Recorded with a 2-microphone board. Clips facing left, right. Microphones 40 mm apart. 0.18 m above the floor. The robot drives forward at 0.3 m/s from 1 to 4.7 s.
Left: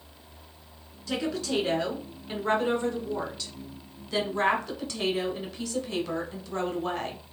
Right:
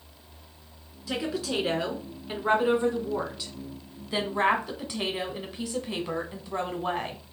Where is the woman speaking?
10° right (ahead or behind), 1.9 m; by 7.2 s 20° right (ahead or behind), 1.2 m.